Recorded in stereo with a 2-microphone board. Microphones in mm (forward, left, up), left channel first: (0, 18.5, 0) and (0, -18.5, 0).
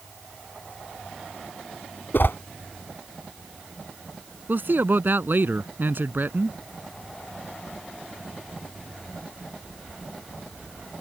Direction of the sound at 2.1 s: 65° left (ahead or behind).